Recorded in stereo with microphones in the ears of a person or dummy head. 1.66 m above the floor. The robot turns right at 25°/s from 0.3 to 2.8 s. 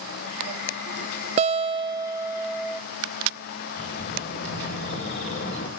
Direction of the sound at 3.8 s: 50° left (ahead or behind).